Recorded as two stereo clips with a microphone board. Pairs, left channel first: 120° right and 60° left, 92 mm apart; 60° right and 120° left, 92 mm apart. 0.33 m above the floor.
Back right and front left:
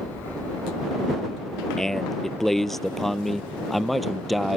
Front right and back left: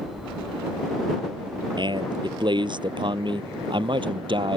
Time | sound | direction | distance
1.8 | a man speaking | 155° left | ?